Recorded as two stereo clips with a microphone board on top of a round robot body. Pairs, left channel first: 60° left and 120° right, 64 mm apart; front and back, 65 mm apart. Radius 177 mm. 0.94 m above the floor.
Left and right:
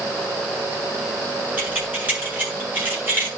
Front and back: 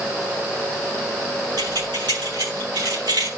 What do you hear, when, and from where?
1.6 s keys jangling: 175° left, 9 m; by 3.3 s straight behind, 8 m